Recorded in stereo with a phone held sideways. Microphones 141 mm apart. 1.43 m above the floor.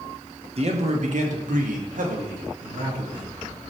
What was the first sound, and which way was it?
A man speaking, 50° right (ahead or behind).